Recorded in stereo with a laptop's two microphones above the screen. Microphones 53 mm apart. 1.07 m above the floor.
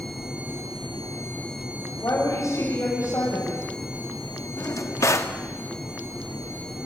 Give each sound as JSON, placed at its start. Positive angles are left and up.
{"t": 2.0, "sound": "a woman speaking", "side_deg": 75, "distance_m": 7.0}
{"t": 4.6, "sound": "a drawer", "side_deg": 70, "distance_m": 1.2}